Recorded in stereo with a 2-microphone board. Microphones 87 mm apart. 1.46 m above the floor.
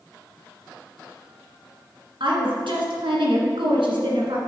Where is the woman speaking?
80° right, 2.0 m.